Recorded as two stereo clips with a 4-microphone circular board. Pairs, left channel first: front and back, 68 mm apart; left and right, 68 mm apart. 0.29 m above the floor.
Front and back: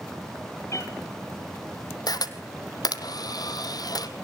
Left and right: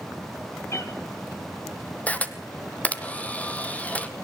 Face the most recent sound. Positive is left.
turn(degrees=20)